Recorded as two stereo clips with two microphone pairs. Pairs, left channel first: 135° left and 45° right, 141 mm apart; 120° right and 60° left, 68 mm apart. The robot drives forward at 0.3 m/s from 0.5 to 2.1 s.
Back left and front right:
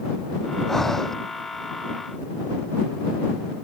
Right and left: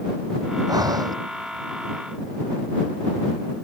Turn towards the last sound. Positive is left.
turn(degrees=45)